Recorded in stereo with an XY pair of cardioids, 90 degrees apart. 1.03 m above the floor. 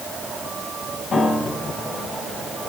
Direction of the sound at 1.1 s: 55° left.